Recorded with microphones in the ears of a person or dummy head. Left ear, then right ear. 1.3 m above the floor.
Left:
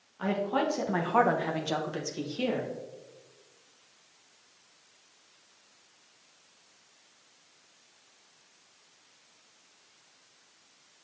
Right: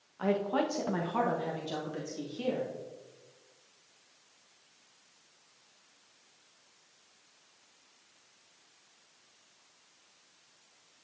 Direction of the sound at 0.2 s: 15° right (ahead or behind).